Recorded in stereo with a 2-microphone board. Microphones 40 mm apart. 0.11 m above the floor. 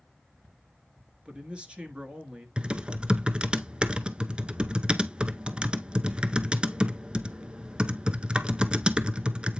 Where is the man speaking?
30° right (ahead or behind), 1.3 m.